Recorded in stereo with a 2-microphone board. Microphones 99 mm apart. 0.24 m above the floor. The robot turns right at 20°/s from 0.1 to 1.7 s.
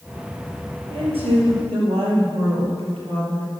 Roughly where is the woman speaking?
Right.